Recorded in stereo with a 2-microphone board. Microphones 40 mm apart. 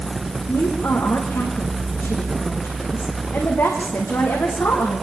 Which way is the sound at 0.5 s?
75° left (ahead or behind).